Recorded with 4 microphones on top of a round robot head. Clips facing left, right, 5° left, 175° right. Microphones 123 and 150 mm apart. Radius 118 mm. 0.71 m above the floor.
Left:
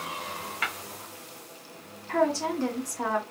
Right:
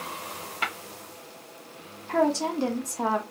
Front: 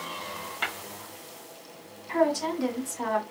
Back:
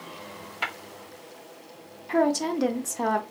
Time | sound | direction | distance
0.6 | tapping | 100° right | 1.2 m
2.1 | a woman speaking | 150° right | 0.7 m